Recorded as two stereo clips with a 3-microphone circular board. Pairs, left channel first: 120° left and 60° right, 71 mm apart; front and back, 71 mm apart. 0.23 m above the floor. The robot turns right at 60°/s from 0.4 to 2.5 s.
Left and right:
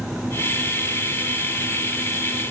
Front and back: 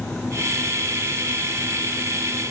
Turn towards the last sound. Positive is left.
No sound to turn to.